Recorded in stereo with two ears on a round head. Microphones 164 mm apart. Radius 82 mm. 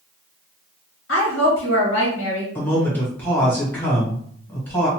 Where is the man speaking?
10° left (ahead or behind), 1.5 m.